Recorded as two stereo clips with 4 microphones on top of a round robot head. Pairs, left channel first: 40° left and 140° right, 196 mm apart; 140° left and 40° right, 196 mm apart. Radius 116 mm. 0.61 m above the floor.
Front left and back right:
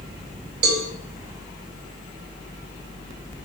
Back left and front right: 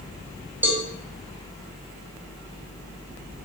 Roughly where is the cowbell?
Behind right.